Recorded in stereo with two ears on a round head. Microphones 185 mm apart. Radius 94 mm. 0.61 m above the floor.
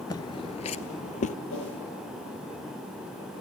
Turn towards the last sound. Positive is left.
turn(degrees=65)  # may be behind; listen again after turning